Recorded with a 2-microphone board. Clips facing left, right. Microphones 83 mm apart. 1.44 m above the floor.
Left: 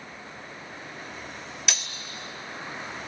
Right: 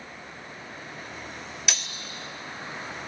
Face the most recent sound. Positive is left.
turn(degrees=0)  # may be behind; listen again after turning